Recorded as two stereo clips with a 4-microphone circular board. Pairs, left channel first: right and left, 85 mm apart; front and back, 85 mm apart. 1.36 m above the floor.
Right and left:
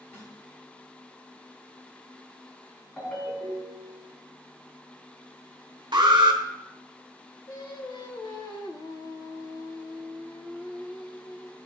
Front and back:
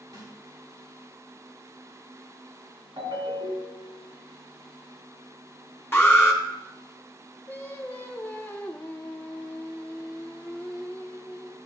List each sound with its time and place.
0.1 s a snare drum: 150° right, 2.5 m
3.0 s a ringtone: 160° right, 2.5 m
5.9 s an alarm: 65° left, 1.0 m
7.5 s singing: 65° right, 0.7 m